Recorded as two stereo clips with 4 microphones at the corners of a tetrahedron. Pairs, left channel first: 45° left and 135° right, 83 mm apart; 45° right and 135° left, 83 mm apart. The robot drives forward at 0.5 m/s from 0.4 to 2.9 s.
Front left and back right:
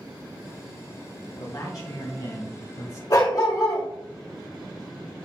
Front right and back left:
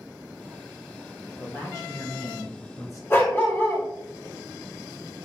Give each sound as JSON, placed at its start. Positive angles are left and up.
{"t": 1.4, "sound": "a man speaking", "azimuth_deg": 0, "distance_m": 2.0}
{"t": 3.1, "sound": "a dog barking", "azimuth_deg": 10, "distance_m": 2.0}